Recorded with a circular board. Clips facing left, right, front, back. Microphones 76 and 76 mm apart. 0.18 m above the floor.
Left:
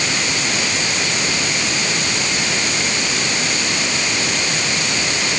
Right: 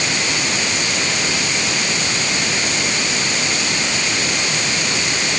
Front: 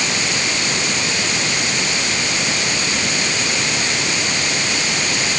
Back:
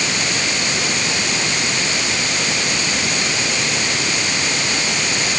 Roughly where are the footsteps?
No footsteps in this recording.